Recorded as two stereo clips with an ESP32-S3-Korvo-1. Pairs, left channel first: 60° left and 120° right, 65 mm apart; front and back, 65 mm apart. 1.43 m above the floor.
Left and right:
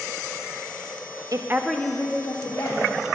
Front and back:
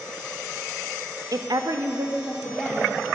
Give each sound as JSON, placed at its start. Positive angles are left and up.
{"t": 1.3, "sound": "a woman speaking", "azimuth_deg": -150, "distance_m": 0.5}